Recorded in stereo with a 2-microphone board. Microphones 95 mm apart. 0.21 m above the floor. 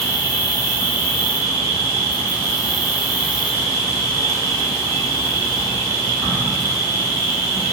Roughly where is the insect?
Left.